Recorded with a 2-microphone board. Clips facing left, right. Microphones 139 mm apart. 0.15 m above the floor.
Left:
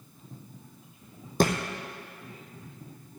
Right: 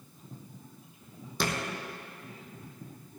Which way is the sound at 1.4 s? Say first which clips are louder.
Left 8 dB; 45° left (ahead or behind).